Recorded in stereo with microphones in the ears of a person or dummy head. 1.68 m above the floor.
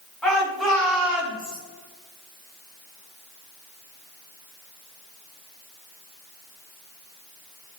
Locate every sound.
0.2 s a shout: centre (ahead or behind), 4.5 m; by 1.6 s 5° right (ahead or behind), 3 m